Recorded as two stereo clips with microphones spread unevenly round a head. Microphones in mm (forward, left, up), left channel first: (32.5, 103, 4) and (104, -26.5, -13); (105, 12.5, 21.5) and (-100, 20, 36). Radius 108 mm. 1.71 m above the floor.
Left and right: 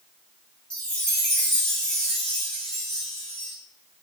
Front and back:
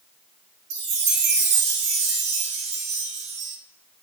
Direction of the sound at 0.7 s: 160° right.